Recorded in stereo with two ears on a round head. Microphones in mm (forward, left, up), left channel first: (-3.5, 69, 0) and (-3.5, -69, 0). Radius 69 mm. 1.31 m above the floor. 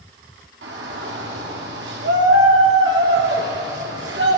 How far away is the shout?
About 3 m.